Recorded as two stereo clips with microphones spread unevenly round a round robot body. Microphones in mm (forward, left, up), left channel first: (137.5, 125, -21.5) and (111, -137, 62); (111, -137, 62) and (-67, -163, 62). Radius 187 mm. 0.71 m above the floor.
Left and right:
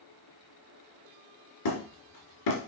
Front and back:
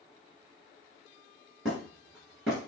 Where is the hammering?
95° left, 2.5 m.